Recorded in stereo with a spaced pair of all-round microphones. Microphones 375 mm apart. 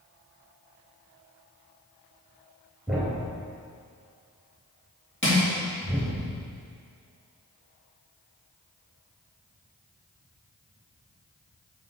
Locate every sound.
2.9 s a thud: centre (ahead or behind), 2.5 m
5.2 s crushing: 30° left (ahead or behind), 2.5 m